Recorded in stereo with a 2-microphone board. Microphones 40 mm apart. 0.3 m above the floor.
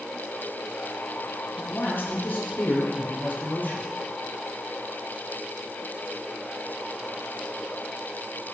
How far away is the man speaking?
About 8.5 m.